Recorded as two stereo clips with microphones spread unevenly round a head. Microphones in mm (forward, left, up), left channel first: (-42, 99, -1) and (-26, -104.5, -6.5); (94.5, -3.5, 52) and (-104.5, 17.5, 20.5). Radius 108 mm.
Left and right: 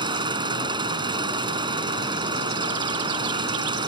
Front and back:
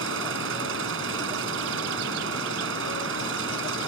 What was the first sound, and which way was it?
An engine running, 155° right.